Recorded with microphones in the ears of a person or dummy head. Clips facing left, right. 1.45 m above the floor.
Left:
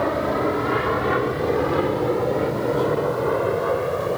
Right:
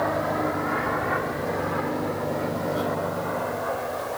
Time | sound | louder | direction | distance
0.0 | an aircraft | left 4 dB | 50° left (ahead or behind) | ?